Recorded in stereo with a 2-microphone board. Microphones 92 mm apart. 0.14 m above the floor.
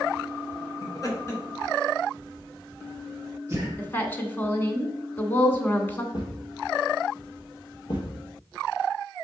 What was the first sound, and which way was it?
Laughter, 45° left (ahead or behind).